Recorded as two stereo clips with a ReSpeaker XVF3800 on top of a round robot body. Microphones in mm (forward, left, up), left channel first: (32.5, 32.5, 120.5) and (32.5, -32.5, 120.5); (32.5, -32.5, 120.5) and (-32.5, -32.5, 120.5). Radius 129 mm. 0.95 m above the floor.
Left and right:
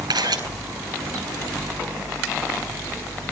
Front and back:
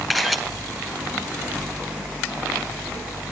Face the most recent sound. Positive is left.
turn(degrees=-90)